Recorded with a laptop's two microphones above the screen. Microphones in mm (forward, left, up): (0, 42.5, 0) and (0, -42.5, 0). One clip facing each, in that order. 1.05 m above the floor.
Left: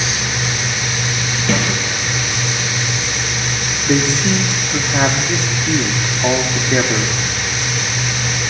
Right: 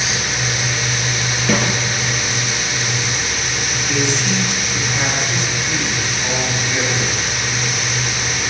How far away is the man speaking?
About 3 m.